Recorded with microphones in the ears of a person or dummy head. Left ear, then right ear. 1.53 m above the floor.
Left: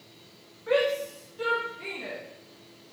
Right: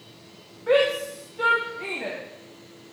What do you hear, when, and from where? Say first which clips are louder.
0.7 s a shout: right 4 dB; 15° right (ahead or behind), 1.8 m; by 2.2 s 35° right (ahead or behind), 2.5 m